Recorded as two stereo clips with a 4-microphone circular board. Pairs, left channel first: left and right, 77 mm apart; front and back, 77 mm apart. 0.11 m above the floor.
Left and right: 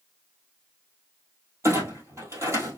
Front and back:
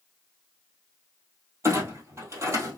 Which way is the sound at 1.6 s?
135° right.